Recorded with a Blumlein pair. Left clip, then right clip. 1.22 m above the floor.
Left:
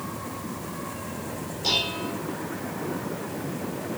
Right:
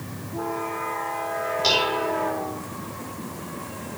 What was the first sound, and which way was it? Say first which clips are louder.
Dishes clattering: right 3 dB; 65° right.